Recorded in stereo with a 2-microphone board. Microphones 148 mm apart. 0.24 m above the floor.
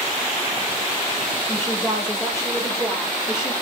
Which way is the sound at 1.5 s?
20° left (ahead or behind).